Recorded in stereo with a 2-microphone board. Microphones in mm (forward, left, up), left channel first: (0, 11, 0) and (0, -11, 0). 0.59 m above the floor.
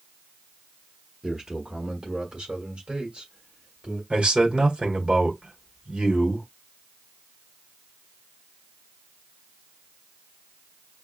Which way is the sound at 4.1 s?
60° right (ahead or behind).